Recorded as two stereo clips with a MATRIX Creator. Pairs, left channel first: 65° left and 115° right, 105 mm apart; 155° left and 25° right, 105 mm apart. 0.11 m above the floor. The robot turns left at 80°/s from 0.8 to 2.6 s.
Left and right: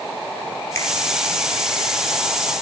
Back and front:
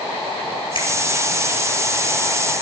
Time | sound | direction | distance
0.8 | a finger snap | 130° left | 3 m